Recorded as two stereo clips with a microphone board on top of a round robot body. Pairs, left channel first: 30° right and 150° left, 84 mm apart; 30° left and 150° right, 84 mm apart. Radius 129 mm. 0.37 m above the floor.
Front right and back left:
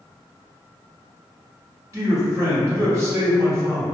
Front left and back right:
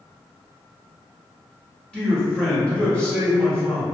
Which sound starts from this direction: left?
A man speaking, at 1.9 s.